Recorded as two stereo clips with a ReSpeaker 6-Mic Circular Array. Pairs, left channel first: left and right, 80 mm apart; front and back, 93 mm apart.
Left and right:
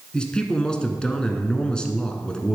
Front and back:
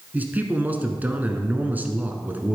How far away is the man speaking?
About 1.0 m.